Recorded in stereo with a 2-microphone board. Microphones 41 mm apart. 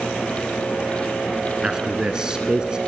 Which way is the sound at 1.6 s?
20° right (ahead or behind).